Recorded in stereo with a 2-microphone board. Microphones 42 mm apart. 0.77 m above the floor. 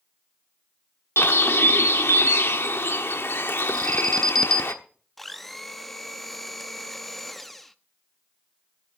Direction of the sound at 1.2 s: 65° left (ahead or behind).